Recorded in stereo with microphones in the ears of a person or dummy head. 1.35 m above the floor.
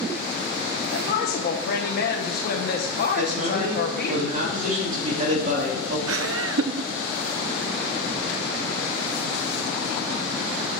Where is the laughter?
70° right (ahead or behind), 0.6 m.